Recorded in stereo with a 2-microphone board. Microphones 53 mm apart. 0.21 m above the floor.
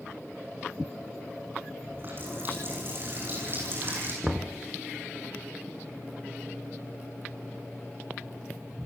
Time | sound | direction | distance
1.8 | a running tap | 40° right (ahead or behind) | 9 m
4.2 | knocking | 15° right (ahead or behind) | 1.7 m